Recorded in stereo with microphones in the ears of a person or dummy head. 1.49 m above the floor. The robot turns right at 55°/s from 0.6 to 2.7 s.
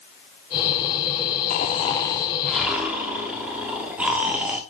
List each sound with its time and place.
1.5 s snoring: 120° left, 1.4 m; by 4.6 s 175° right, 1.4 m